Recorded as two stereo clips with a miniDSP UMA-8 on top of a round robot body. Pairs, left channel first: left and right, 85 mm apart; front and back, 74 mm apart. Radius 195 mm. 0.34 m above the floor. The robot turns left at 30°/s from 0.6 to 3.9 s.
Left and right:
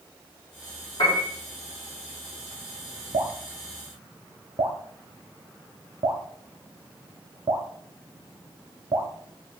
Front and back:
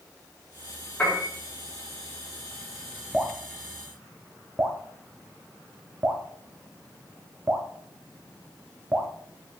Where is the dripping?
95° right, 0.9 m; by 9.1 s 120° right, 0.9 m.